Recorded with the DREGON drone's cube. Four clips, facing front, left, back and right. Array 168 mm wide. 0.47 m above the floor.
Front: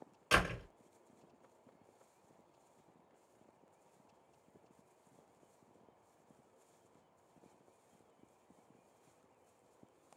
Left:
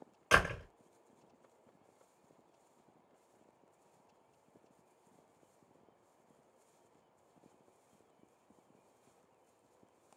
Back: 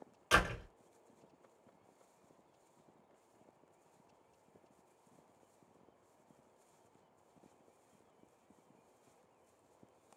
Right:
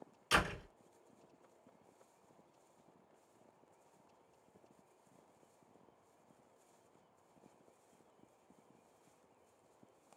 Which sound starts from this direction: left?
A door slam, at 0.3 s.